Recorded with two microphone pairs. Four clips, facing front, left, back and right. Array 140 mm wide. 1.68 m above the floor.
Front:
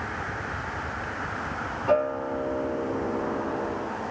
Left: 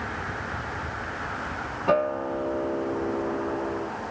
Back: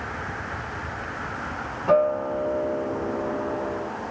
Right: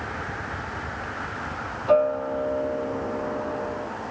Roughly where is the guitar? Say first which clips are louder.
Right 4 dB, back 4 dB; left.